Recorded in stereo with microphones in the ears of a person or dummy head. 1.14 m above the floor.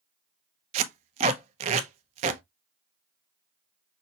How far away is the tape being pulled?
About 0.6 m.